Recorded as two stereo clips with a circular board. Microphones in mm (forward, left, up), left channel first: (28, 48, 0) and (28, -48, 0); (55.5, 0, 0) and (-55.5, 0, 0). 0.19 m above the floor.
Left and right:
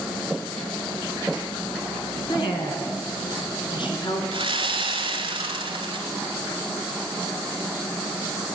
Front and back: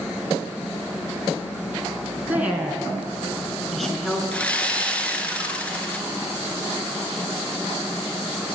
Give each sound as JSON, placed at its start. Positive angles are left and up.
{"t": 2.3, "sound": "a woman speaking", "azimuth_deg": 110, "distance_m": 2.5}
{"t": 4.3, "sound": "sawing", "azimuth_deg": -80, "distance_m": 1.4}